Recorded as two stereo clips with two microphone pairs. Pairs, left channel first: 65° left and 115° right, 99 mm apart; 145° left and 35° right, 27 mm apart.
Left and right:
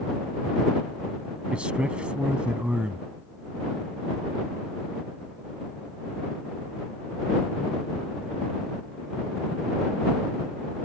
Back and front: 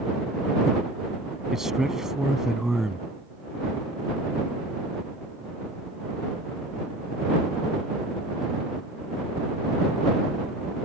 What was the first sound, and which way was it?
A man speaking, 55° right.